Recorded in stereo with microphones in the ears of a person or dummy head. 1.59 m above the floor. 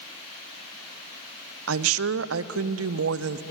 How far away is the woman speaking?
About 0.7 m.